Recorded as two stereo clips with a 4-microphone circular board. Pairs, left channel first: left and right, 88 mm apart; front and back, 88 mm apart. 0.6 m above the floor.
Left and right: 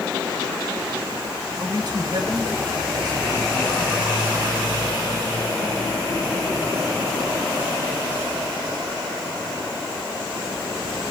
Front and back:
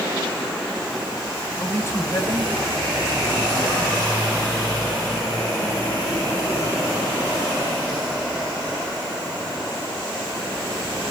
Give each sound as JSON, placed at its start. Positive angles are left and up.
{"t": 1.6, "sound": "a man speaking", "azimuth_deg": -60, "distance_m": 2.5}